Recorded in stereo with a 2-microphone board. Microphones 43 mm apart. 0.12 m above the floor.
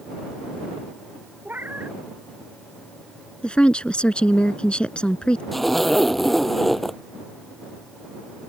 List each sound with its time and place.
1.4 s a cat meowing: 45° right (ahead or behind)
3.4 s a woman speaking: 25° left (ahead or behind)
5.5 s a zipper: 5° left (ahead or behind)